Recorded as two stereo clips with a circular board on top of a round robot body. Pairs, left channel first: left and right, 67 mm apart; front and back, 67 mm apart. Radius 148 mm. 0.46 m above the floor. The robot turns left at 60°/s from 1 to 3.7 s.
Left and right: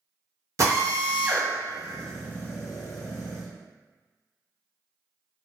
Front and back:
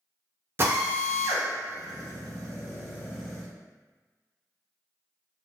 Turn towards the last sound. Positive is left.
turn(degrees=70)